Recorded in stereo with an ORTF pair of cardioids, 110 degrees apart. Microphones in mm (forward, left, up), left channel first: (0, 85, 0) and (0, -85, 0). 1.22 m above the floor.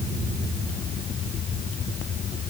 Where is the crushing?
I don't hear crushing.